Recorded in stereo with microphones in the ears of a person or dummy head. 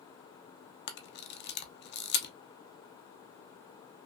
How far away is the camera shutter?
About 0.6 m.